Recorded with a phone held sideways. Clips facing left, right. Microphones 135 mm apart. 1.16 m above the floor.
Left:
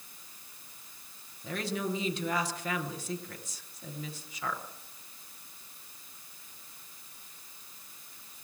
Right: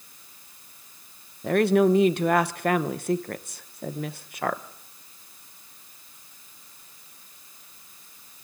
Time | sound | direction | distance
1.4 | a woman speaking | 70° right (ahead or behind) | 0.8 m